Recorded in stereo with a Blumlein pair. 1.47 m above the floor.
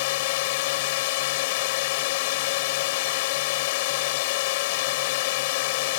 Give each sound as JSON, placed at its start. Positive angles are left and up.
{"t": 0.0, "sound": "a drone", "azimuth_deg": 50}